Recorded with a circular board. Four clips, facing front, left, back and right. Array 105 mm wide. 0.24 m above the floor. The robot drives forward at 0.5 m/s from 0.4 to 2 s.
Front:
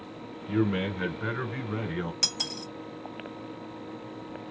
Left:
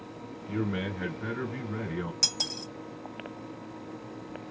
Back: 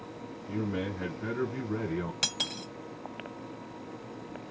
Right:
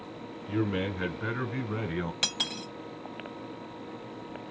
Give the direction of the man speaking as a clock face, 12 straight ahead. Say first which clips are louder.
Right 2 dB, front 6 dB; 1 o'clock.